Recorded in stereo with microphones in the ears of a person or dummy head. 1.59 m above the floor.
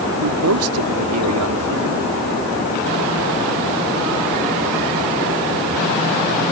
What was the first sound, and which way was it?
A man speaking, 80° right.